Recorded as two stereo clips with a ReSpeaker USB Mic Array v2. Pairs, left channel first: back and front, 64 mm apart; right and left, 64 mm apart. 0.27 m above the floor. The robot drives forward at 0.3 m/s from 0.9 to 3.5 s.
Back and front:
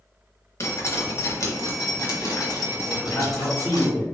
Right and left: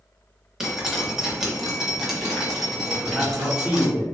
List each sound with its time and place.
0.6 s dripping: 170° left, 0.9 m; by 3.9 s 175° left, 1.5 m
2.9 s a man speaking: 165° left, 1.4 m; by 4.0 s 170° left, 1.5 m